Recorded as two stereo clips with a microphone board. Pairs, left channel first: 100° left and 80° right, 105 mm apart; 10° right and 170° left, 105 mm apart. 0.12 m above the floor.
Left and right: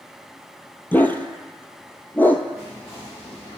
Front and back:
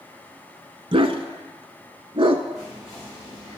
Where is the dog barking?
165° left, 0.6 m.